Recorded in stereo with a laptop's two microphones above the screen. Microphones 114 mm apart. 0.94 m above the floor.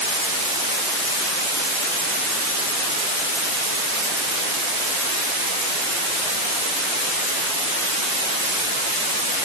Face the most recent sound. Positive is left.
No sound to turn to.